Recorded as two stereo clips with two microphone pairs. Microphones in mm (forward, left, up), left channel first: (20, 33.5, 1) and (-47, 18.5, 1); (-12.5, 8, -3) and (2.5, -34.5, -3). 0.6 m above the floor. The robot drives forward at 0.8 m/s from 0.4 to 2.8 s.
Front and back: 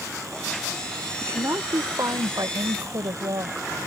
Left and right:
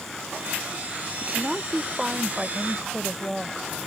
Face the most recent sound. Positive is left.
turn(degrees=-155)